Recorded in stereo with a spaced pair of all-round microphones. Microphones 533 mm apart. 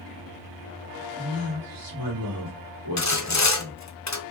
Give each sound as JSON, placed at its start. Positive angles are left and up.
{"t": 1.1, "sound": "a man speaking", "side_deg": -40, "distance_m": 2.5}
{"t": 3.0, "sound": "sawing", "side_deg": 35, "distance_m": 0.6}